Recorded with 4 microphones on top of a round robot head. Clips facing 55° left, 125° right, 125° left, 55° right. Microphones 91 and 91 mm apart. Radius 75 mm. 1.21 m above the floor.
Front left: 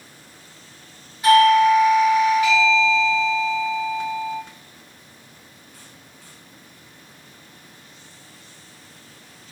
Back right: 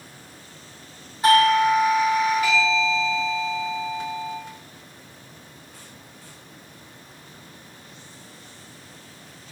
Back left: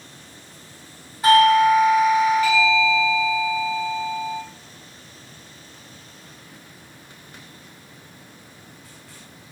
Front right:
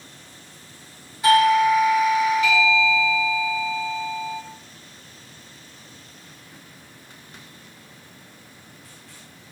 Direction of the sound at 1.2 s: Straight behind.